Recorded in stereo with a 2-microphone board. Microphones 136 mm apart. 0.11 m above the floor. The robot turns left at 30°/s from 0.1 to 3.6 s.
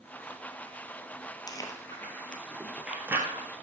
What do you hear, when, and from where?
1.5 s chewing: 30° left (ahead or behind), 2 m; by 3.6 s 25° right (ahead or behind), 2 m